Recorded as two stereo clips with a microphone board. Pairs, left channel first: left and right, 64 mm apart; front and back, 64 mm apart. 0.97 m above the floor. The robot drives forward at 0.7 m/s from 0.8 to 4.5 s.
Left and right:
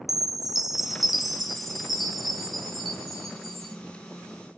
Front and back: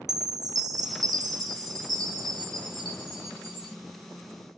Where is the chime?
175° right, 0.8 m; by 3.8 s straight behind, 3 m.